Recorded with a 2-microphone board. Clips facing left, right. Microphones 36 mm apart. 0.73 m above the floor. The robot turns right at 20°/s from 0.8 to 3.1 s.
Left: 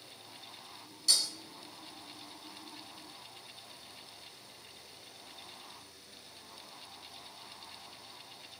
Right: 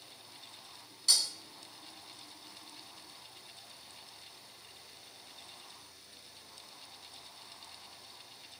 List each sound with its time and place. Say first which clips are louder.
1.1 s breaking glass: even; 30° right (ahead or behind), 2 m